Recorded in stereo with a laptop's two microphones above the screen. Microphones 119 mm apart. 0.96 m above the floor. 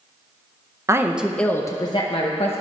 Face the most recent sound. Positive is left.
turn(degrees=60)  # may be behind; listen again after turning